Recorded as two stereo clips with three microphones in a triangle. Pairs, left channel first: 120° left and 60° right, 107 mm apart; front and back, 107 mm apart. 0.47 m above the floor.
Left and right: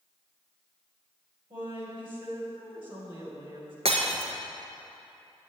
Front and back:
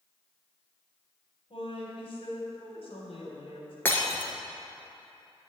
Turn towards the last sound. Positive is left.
turn(degrees=-70)